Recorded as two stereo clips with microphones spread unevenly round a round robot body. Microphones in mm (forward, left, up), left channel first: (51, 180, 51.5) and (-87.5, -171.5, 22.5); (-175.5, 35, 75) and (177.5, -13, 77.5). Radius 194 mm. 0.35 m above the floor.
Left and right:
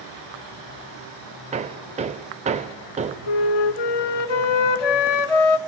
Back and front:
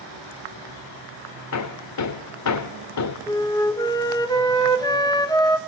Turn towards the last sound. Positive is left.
turn(degrees=90)